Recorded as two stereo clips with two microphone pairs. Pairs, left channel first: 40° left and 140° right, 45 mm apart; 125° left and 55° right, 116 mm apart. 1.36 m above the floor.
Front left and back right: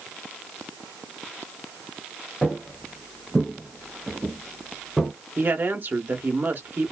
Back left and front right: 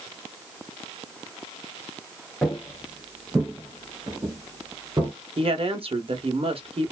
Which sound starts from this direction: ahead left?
Footsteps, at 2.4 s.